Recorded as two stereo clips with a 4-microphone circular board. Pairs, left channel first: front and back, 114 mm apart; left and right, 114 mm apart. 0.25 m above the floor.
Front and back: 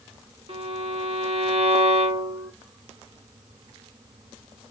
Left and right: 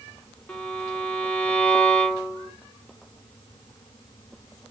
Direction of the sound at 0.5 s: 165° left.